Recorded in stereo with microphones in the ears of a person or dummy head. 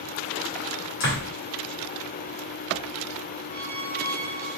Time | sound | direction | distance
1.0 | a door slam | 65° left (ahead or behind) | 1.9 m
3.5 | a squeak | 65° left (ahead or behind) | 1.1 m